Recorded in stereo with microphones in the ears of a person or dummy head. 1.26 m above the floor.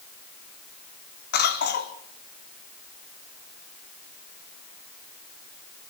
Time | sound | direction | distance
1.3 | a cough | 50° left (ahead or behind) | 2.5 m